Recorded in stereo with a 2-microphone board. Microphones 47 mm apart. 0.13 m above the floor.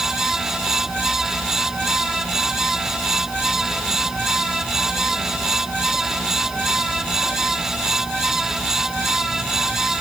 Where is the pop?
No pop in this recording.